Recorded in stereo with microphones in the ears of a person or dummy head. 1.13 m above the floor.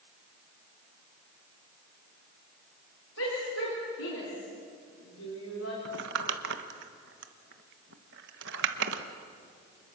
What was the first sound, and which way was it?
A shout, 75° left (ahead or behind).